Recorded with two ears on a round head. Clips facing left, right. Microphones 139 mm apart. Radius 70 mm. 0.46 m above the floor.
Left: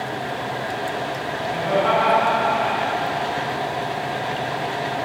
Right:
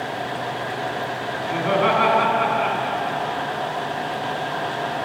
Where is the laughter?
75° right (ahead or behind), 4 m.